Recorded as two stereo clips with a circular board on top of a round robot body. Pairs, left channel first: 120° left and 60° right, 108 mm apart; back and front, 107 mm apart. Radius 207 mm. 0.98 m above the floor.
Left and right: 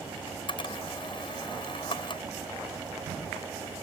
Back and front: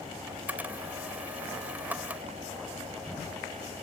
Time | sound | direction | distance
0.3 | a camera shutter | 75° left | ?